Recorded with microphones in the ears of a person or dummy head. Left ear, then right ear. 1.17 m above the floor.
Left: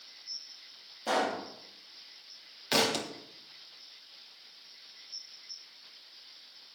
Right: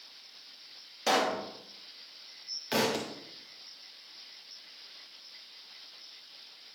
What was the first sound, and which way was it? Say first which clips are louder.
A pop: right 2 dB; 60° right (ahead or behind).